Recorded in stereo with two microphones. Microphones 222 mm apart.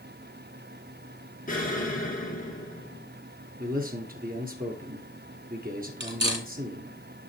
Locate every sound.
1.5 s an explosion: 35° left (ahead or behind), 2 m
3.6 s a man speaking: 40° right (ahead or behind), 1.8 m
6.0 s cutlery clinking: 55° right (ahead or behind), 1.6 m